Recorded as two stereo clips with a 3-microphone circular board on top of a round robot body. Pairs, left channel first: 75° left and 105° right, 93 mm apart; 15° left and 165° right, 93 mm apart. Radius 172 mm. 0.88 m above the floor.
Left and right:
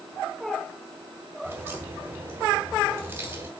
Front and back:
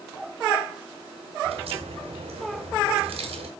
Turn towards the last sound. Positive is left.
turn(degrees=-175)